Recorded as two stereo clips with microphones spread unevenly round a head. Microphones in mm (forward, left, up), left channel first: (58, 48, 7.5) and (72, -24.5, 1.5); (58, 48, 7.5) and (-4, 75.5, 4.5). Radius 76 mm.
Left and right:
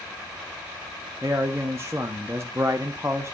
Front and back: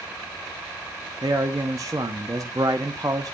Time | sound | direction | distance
1.2 | a man speaking | 145° right | 0.6 m